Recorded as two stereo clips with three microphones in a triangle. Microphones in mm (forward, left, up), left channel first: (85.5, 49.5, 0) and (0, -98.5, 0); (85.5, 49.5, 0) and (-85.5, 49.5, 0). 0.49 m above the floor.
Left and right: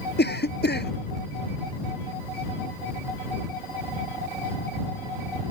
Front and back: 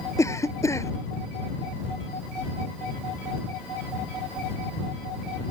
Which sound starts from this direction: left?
A cough, at 0.2 s.